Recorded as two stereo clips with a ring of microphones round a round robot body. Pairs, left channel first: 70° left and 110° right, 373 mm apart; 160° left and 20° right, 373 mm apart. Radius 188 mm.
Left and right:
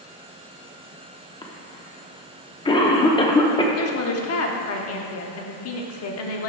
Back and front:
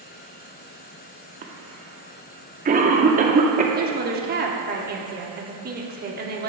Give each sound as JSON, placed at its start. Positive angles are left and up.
{"t": 1.4, "sound": "a cough", "azimuth_deg": 10, "distance_m": 0.7}
{"t": 3.8, "sound": "a woman speaking", "azimuth_deg": 35, "distance_m": 0.8}